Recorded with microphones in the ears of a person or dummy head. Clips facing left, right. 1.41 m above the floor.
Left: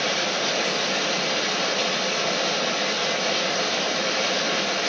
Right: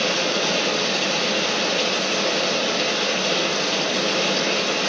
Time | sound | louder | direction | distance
0.0 | running water | right 4 dB | 30° right (ahead or behind) | 6 m